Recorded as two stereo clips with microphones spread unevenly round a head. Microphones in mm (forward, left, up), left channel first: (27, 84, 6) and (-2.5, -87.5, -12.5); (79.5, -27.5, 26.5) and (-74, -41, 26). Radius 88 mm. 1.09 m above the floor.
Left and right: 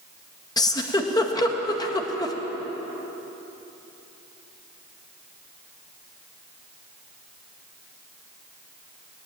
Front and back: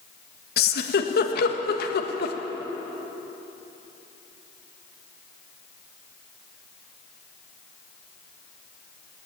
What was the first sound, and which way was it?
A giggle, 10° left.